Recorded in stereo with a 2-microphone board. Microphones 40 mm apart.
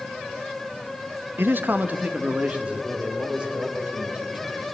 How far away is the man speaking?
About 0.7 m.